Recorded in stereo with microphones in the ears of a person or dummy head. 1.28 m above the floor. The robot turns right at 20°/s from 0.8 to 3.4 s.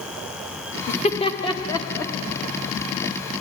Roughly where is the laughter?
Left.